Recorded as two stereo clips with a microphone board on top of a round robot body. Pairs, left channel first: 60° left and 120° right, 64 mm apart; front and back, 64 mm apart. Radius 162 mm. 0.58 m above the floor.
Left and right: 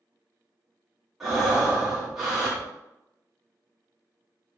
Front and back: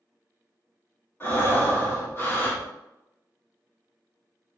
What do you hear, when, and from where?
1.2 s breathing: 35° right, 1.5 m